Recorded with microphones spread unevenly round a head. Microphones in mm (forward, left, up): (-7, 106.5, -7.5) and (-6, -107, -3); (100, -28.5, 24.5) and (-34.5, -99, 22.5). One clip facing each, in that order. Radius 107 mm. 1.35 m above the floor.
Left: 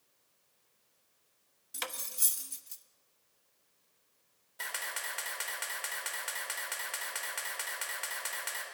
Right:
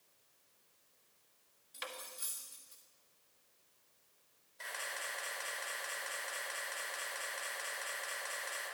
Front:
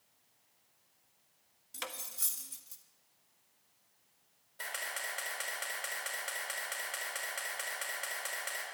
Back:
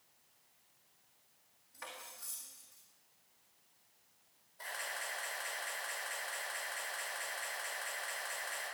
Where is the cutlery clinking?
70° left, 1.3 m.